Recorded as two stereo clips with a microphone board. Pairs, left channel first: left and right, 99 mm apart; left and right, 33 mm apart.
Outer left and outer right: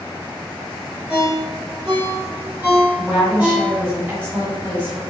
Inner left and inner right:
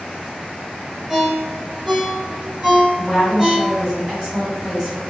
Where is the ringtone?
15° right (ahead or behind), 1.5 m.